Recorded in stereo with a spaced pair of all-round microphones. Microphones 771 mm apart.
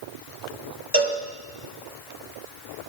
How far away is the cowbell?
About 1.2 m.